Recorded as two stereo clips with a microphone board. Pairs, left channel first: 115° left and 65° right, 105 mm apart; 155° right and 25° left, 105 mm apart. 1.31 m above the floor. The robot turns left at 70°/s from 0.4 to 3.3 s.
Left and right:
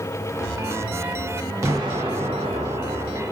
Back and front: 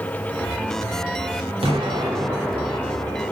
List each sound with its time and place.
1.6 s an explosion: 5° right, 0.7 m; by 3.3 s 125° right, 0.7 m